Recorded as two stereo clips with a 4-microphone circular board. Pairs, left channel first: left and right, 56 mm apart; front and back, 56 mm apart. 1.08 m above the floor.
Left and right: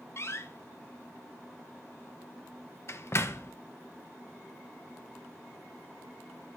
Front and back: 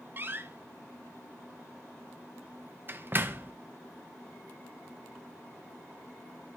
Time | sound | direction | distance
0.2 | a door slam | 130° left | 0.5 m